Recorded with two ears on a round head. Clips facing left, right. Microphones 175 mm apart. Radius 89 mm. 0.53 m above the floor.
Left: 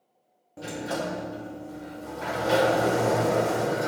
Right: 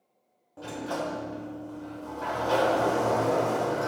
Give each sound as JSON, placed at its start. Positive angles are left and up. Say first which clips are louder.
{"t": 0.6, "sound": "a sliding door", "louder": "left 2 dB", "side_deg": 25, "distance_m": 0.6}